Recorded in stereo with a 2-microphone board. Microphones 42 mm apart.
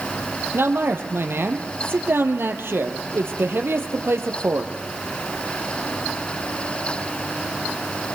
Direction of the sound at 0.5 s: 70° right (ahead or behind).